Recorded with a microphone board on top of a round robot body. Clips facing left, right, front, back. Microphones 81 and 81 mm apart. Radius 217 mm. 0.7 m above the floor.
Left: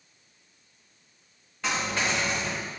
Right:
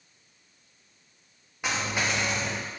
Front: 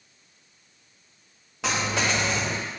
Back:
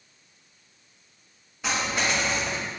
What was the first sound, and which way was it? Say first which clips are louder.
A dropped coin: left 1 dB, front 1 dB; 10° right.